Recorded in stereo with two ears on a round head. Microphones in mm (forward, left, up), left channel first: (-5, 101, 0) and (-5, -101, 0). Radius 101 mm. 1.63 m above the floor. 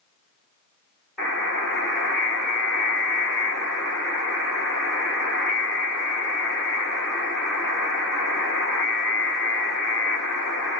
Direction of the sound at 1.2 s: Centre (ahead or behind).